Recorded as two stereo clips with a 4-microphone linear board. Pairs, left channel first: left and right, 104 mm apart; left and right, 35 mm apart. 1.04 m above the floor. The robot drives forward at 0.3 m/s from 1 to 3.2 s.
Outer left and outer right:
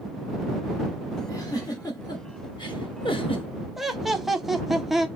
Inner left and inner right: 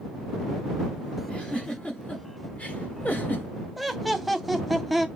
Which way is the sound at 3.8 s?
Centre (ahead or behind).